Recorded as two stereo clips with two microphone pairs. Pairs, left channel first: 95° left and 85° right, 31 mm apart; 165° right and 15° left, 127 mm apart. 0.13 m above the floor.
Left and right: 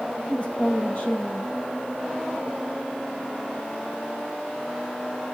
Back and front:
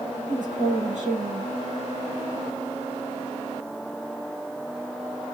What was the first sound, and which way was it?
A woman speaking, 40° left.